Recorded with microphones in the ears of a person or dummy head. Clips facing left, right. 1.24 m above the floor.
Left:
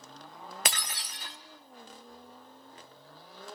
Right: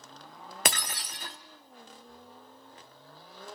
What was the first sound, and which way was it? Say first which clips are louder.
Breaking glass: right 5 dB; 50° right (ahead or behind).